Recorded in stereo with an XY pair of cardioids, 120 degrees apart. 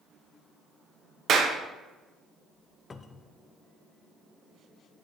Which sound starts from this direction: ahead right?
A clap, at 1.3 s.